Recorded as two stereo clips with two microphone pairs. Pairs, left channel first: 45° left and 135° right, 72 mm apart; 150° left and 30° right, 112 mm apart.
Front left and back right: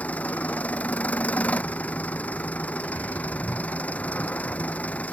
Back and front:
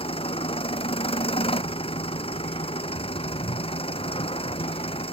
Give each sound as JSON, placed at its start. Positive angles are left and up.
{"t": 0.0, "sound": "an engine running", "azimuth_deg": 115}